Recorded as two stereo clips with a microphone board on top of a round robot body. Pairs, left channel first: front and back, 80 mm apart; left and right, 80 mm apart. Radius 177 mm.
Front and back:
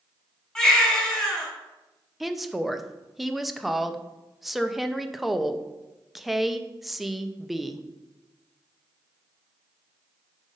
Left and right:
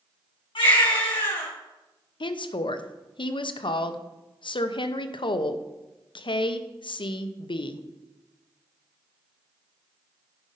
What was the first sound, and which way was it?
A baby crying, 85° left.